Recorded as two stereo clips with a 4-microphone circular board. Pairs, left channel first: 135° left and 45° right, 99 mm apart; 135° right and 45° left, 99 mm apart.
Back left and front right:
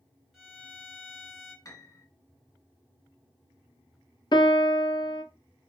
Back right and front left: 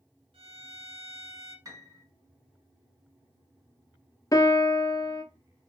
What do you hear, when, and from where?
0.3 s a violin: 40° left, 1.5 m
1.6 s a piano: 90° left, 1.2 m
4.3 s a piano: 170° left, 0.6 m